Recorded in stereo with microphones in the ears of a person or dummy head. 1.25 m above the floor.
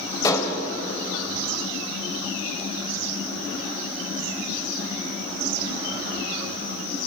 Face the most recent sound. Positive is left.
turn(degrees=25)  # may be behind; listen again after turning